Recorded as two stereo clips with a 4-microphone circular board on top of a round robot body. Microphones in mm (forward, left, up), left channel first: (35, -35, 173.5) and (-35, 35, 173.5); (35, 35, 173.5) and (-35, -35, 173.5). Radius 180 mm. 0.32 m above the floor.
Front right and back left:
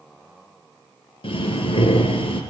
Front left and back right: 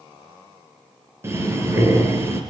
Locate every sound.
1.2 s breathing: 70° right, 4 m